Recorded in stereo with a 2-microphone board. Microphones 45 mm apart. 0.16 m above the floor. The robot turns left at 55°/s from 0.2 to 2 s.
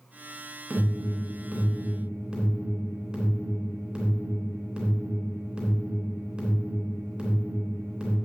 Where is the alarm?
35° right (ahead or behind), 3 m; by 8.2 s 20° right (ahead or behind), 3 m.